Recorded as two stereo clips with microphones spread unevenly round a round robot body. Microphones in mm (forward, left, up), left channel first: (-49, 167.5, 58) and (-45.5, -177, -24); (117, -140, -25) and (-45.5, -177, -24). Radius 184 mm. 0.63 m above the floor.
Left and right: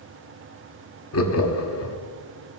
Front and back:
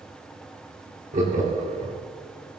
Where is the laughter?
145° left, 1.5 m.